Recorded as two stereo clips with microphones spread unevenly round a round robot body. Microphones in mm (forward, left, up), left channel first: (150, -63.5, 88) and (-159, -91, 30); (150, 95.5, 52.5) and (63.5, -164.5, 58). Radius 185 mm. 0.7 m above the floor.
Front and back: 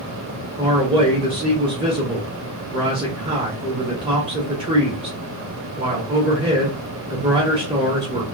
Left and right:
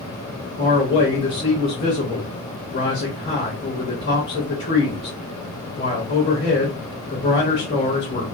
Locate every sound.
0.6 s a man speaking: 135° left, 1.3 m